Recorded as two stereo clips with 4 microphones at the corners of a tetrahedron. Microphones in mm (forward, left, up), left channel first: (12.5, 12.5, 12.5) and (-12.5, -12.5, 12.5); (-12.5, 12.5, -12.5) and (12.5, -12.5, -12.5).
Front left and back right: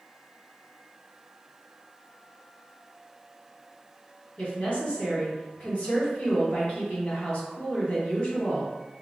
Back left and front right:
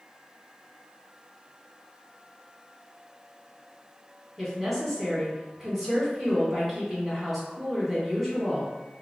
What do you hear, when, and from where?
4.4 s a woman speaking: 45° left, 1.6 m